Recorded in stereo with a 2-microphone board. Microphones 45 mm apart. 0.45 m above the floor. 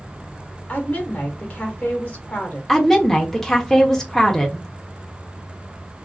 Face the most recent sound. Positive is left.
turn(degrees=10)  # may be behind; listen again after turning